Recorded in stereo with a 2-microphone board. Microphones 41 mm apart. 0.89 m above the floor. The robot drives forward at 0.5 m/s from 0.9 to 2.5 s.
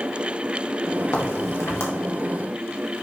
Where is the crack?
80° left, 2 m; by 1.9 s 75° left (ahead or behind), 2 m.